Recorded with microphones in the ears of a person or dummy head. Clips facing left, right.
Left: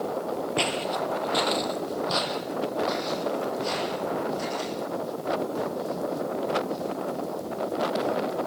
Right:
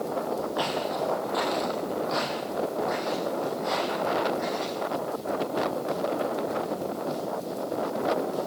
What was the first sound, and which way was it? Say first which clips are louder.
Footsteps: even; 40° left (ahead or behind).